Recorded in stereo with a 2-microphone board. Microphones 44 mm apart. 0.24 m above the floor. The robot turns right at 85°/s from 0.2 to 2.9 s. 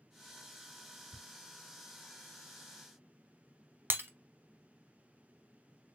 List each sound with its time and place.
1.1 s ticking: 25° right (ahead or behind), 1.3 m
3.9 s breaking glass: 50° right (ahead or behind), 0.6 m